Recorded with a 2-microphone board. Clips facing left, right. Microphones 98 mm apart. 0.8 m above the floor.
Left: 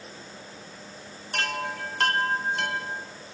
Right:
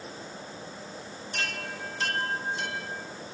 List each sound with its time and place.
1.3 s a chime: 60° left (ahead or behind), 1.7 m